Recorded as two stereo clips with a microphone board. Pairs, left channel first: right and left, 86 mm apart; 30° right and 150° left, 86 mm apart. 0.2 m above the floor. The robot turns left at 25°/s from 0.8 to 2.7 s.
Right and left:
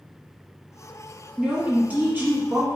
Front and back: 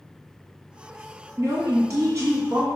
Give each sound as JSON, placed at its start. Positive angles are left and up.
{"t": 1.4, "sound": "a woman speaking", "azimuth_deg": 155, "distance_m": 1.3}